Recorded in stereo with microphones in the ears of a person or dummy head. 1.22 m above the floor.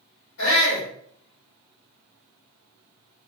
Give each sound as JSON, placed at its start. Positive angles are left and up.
{"t": 0.4, "sound": "a shout", "side_deg": 85, "distance_m": 1.6}